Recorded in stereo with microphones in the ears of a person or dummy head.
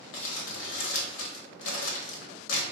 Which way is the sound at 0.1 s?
75° left (ahead or behind).